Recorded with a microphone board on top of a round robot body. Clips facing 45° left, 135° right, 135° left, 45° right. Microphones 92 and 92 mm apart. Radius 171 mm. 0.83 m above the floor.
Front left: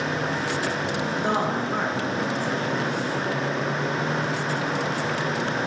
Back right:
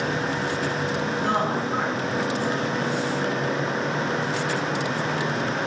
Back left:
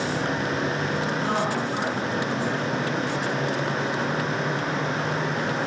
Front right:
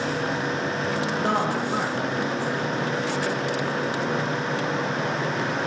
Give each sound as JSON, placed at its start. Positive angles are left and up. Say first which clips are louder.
{"t": 1.2, "sound": "a woman speaking", "louder": "even, front right 3 dB", "azimuth_deg": -25, "distance_m": 0.7}